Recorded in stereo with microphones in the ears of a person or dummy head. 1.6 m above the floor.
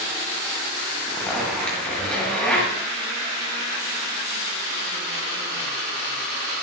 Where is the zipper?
Centre (ahead or behind), 9 m.